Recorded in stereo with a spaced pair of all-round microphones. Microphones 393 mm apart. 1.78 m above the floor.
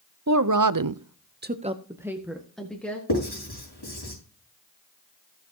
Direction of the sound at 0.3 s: 40° right (ahead or behind).